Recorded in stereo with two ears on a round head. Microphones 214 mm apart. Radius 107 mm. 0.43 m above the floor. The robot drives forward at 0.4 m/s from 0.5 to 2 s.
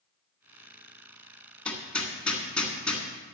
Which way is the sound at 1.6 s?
5° left (ahead or behind).